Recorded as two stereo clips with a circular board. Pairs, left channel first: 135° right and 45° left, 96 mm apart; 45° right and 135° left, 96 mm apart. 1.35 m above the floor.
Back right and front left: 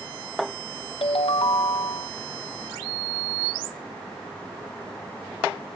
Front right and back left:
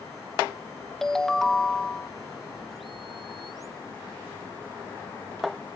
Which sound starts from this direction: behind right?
A ringtone, at 1.0 s.